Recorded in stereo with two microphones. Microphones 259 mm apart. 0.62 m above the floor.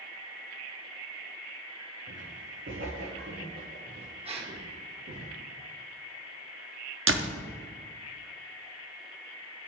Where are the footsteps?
45° right (ahead or behind), 1.9 m; by 5.2 s 60° right (ahead or behind), 3.5 m.